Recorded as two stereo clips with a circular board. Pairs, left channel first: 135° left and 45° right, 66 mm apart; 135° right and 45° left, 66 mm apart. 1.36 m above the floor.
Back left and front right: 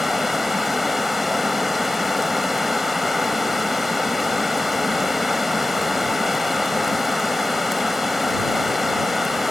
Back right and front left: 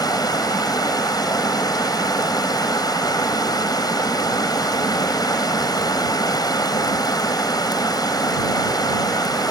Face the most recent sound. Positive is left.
turn(degrees=-135)